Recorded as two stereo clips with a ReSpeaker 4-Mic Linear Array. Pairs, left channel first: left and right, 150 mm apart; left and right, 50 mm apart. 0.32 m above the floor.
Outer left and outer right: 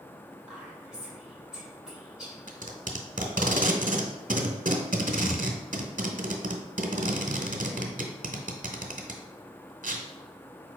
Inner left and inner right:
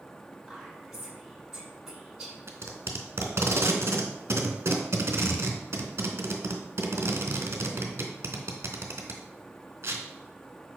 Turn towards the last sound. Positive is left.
turn(degrees=-60)  # may be behind; listen again after turning